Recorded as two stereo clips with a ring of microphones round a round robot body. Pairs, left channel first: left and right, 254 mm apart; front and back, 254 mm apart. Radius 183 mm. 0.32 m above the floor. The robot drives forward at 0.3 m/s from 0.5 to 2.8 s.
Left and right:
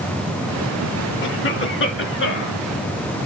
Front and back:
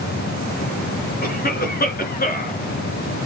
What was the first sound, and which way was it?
A cough, 50° left.